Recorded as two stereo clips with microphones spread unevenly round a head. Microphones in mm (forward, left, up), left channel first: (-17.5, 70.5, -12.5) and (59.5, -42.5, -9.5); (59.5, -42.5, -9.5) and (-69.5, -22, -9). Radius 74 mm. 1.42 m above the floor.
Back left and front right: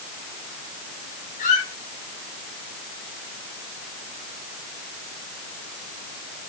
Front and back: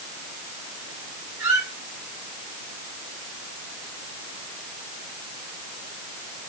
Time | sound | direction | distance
1.4 | a squeak | 90° left | 4 m